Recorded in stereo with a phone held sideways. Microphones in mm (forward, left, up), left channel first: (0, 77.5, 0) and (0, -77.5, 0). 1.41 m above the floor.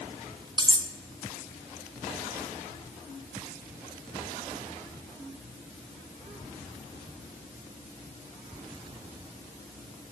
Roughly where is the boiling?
No boiling in this recording.